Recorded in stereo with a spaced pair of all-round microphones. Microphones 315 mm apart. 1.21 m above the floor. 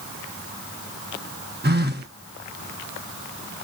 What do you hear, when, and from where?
1.6 s a phone buzzing: 30° right (ahead or behind), 0.7 m